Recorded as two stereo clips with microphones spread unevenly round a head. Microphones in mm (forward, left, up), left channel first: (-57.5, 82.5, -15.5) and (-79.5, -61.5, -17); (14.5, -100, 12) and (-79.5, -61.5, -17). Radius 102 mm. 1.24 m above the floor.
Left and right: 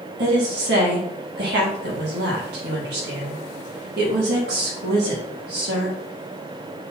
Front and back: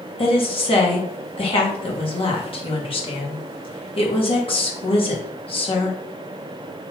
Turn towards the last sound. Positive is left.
turn(degrees=-55)